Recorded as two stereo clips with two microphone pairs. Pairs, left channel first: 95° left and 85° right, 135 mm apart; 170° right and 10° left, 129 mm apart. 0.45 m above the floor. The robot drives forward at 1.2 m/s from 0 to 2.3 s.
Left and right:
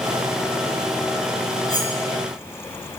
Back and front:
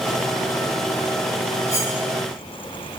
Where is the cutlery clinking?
35° right, 4.5 m.